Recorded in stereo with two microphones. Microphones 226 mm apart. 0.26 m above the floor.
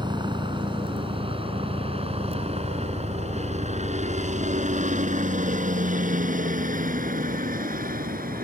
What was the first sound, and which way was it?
A helicopter, 20° right (ahead or behind).